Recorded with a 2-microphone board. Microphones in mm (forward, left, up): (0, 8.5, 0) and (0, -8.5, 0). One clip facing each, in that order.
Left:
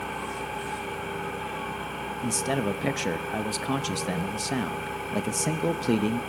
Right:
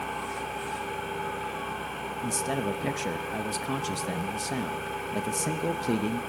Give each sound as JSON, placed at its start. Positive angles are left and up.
{"t": 0.0, "sound": "an engine running", "side_deg": 5, "distance_m": 6.5}
{"t": 2.2, "sound": "a man speaking", "side_deg": 25, "distance_m": 0.5}